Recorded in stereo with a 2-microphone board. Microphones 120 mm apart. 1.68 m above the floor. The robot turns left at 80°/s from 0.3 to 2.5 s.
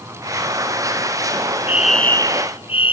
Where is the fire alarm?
165° right; by 2.9 s 130° left.